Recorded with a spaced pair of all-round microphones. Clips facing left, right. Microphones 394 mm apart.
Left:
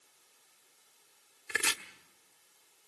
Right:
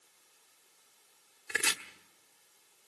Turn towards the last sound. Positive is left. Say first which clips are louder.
# even
turn(degrees=10)  # may be behind; listen again after turning